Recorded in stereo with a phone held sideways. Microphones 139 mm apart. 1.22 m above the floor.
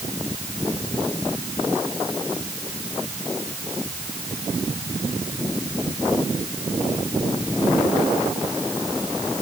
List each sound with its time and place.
Only background noise.